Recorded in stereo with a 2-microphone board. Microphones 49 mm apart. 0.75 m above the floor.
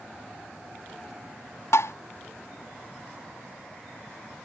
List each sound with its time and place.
1.7 s tapping: 80° left